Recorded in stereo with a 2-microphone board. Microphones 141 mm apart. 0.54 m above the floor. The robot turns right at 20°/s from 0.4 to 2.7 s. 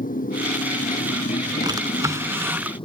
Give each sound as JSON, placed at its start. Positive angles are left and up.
{"t": 0.0, "sound": "a motorcycle", "azimuth_deg": 95}
{"t": 1.6, "sound": "a drawer", "side_deg": -30}